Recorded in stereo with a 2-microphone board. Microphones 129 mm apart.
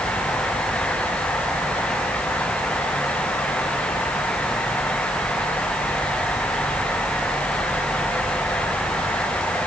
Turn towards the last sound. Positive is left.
No sound to turn to.